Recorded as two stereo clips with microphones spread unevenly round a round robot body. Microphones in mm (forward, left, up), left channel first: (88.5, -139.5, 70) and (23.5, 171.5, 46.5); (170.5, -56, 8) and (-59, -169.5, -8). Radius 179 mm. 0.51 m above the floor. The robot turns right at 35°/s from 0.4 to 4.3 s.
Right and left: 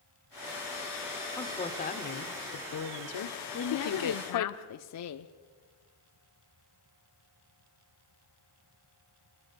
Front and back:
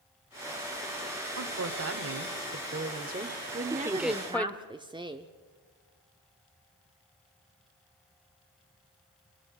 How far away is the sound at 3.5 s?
About 1.0 m.